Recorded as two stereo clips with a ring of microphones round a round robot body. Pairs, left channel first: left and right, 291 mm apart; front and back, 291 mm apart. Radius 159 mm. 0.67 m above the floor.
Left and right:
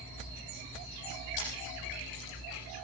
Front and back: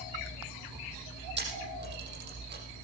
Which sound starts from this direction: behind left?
A camera shutter, at 1.4 s.